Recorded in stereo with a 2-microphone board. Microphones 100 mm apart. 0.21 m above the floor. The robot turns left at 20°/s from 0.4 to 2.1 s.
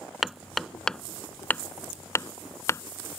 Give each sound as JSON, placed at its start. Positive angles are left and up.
{"t": 0.2, "sound": "hammering", "side_deg": 0}